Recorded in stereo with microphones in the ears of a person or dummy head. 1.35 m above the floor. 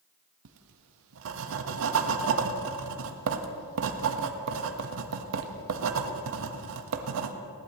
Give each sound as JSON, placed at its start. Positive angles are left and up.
{"t": 0.5, "sound": "writing", "side_deg": -70, "distance_m": 1.2}